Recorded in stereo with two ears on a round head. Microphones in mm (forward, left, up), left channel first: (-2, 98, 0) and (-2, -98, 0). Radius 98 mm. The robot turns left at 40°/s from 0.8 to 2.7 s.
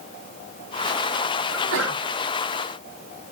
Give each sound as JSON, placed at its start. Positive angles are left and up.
{"t": 1.5, "sound": "a sneeze", "side_deg": -55, "distance_m": 4.0}